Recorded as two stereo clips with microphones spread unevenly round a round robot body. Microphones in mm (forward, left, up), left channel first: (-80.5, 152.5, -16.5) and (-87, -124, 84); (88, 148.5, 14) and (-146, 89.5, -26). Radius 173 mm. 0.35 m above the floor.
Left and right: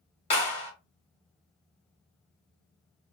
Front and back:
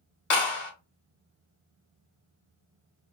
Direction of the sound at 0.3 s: 45° left.